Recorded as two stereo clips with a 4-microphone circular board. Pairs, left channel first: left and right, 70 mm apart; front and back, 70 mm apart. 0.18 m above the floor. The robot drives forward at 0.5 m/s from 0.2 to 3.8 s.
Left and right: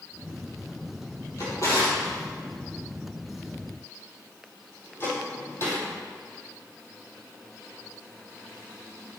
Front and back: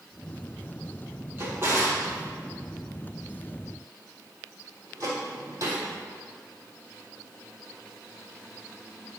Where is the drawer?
125° left, 3 m; by 5.8 s 140° left, 4 m.